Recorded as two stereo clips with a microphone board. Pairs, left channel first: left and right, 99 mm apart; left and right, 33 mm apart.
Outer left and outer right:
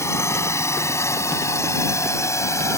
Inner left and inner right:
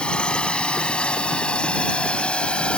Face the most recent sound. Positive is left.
turn(degrees=30)  # may be behind; listen again after turning